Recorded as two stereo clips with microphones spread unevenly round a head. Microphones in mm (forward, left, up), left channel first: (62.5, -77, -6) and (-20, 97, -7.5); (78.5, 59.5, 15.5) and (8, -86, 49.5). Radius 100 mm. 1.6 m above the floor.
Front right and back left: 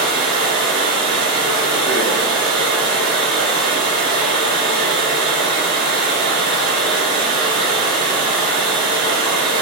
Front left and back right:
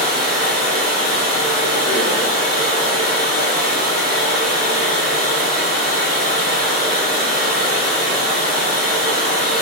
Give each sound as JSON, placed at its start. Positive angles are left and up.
{"t": 0.0, "sound": "running water", "azimuth_deg": 80, "distance_m": 1.5}